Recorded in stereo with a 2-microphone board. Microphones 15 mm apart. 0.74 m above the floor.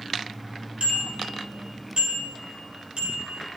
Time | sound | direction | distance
0.8 | a bicycle bell | 85° right | 6.5 m